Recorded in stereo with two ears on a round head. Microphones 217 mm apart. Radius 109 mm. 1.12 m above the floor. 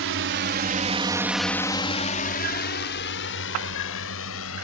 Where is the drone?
60° right (ahead or behind); by 4.6 s 65° left (ahead or behind).